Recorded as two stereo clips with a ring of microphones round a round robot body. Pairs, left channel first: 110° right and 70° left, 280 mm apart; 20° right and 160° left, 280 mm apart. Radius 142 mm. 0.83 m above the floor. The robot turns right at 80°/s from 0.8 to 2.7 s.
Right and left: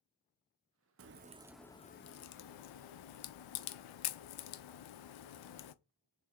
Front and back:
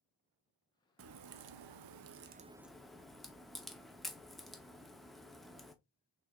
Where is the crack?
110° left, 0.6 m; by 5.7 s 110° right, 0.6 m.